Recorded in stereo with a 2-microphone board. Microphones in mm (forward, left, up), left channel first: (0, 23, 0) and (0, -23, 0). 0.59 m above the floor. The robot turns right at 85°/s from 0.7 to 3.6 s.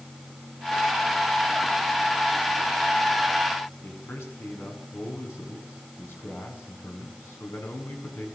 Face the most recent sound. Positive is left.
turn(degrees=65)  # may be behind; listen again after turning